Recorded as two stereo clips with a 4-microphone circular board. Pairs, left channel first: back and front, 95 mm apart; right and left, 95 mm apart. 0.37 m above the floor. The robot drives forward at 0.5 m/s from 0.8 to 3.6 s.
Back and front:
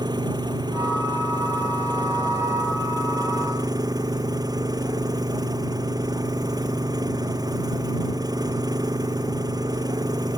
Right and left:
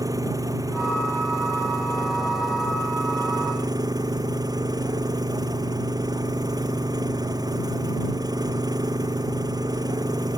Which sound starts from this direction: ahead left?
An engine running, at 0.0 s.